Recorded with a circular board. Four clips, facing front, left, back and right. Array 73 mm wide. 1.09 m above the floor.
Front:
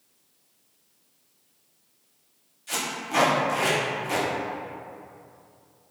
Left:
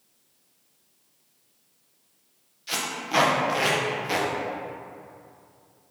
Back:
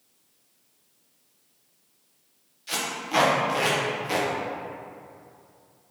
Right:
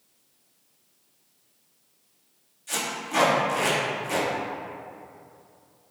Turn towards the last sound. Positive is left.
turn(degrees=115)